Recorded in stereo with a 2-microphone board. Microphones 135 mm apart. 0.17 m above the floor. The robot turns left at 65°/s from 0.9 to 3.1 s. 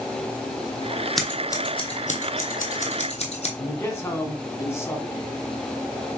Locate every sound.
1.2 s scissors: centre (ahead or behind), 1.1 m; by 3.5 s 55° left (ahead or behind), 1.1 m
3.6 s a man speaking: 20° left (ahead or behind), 1.2 m